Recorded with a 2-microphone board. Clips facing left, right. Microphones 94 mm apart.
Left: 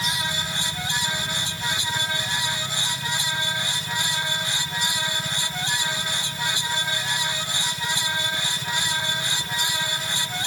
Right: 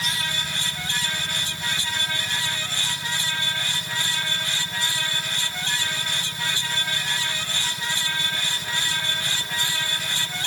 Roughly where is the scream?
I don't hear a scream.